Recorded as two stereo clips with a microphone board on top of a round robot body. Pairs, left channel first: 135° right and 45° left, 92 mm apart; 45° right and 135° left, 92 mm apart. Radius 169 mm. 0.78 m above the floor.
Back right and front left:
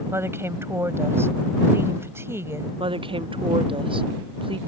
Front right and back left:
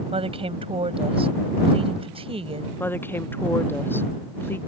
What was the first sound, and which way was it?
A woman speaking, 110° left.